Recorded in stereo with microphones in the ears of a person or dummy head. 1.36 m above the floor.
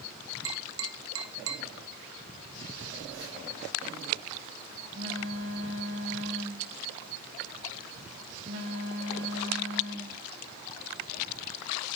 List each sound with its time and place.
0.5 s tapping: 80° right, 1.9 m
2.8 s a phone buzzing: 75° right (ahead or behind), 4.5 m